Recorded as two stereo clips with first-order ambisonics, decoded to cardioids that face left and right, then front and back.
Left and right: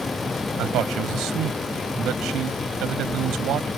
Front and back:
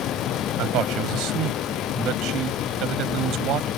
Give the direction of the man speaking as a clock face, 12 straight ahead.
5 o'clock.